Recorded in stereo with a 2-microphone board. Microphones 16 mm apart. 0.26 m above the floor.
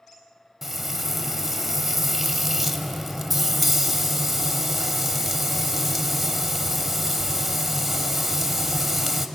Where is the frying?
5° right (ahead or behind), 1.1 m.